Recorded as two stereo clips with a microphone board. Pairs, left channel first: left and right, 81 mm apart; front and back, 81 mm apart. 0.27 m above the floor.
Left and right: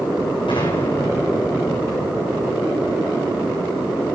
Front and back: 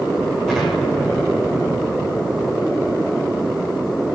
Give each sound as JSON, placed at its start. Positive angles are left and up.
{"t": 0.5, "sound": "an explosion", "azimuth_deg": 85, "distance_m": 8.0}